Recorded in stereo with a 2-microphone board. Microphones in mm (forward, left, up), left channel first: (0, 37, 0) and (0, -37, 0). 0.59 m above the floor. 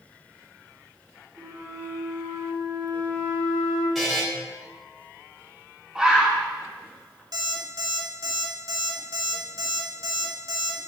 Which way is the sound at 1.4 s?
50° right (ahead or behind).